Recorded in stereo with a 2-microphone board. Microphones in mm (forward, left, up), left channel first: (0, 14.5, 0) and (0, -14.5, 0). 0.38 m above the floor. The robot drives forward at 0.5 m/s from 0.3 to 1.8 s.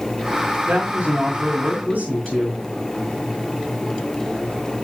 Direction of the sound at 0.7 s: 70° right (ahead or behind).